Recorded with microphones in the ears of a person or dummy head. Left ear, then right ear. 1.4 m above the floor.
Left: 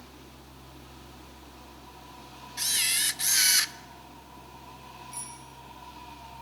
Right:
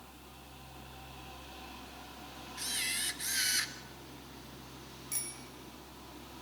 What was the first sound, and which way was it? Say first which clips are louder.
A camera shutter: left 8 dB; 30° left (ahead or behind).